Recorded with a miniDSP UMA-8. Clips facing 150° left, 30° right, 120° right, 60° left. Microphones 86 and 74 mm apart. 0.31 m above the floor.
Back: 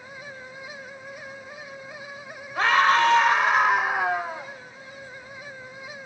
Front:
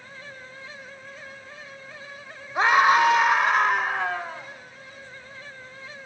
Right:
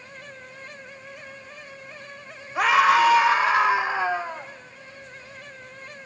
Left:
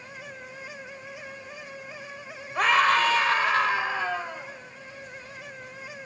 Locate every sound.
2.5 s a scream: 45° right, 1.4 m; by 4.5 s 160° right, 1.5 m